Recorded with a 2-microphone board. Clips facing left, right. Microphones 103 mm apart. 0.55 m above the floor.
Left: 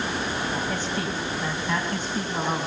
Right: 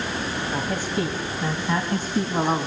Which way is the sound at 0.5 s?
10° right (ahead or behind).